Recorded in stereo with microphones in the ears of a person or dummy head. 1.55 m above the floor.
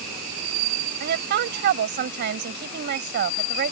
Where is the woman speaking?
50° right (ahead or behind).